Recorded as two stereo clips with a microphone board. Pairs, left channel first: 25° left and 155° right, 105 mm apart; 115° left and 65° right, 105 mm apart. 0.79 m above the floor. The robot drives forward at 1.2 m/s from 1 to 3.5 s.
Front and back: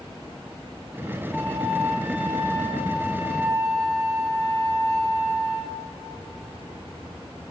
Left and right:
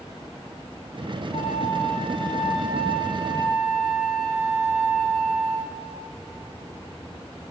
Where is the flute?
105° left, 2 m; by 5.8 s 145° left, 4 m.